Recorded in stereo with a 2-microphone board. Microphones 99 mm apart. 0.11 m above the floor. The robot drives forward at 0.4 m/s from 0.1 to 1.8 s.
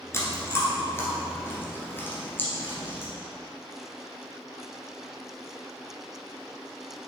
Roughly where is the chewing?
Left.